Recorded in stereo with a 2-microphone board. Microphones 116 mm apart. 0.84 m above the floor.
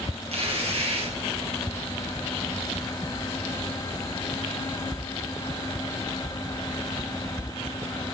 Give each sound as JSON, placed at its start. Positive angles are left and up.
{"t": 0.3, "sound": "tearing paper", "side_deg": -60, "distance_m": 3.5}